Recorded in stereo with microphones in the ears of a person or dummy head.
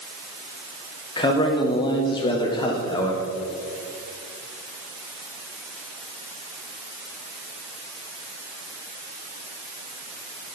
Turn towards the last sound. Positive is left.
turn(degrees=25)  # may be behind; listen again after turning